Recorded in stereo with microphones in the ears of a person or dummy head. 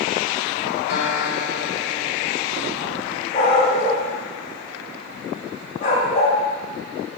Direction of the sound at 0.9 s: 70° left (ahead or behind).